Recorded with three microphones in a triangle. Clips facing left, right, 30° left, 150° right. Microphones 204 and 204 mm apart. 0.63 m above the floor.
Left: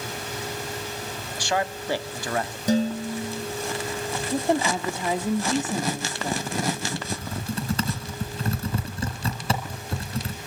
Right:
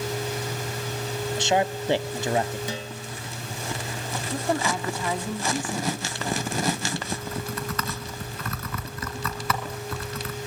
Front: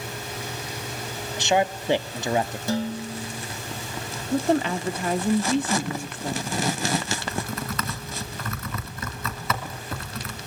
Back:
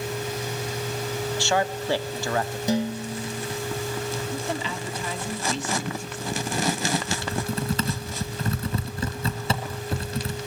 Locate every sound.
1.4 s a man speaking: 35° right, 0.9 m
2.7 s dishes clattering: 140° left, 2 m
4.3 s a woman speaking: 25° left, 1.1 m
7.1 s typing on a keyboard: 150° left, 2.5 m